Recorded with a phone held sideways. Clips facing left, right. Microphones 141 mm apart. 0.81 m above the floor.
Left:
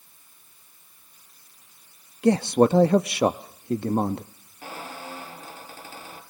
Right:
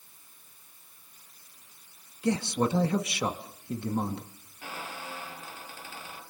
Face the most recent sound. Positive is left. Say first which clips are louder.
# left 3 dB
turn(degrees=40)  # may be behind; listen again after turning